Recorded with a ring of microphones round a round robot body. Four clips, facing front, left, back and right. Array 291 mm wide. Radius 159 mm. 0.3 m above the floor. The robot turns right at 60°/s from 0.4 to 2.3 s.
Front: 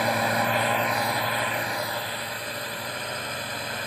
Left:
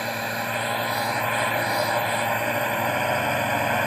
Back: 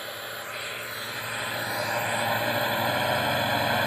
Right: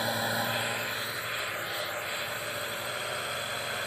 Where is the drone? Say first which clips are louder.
Left 3 dB, front 14 dB; 5° left; by 3.9 s 120° left.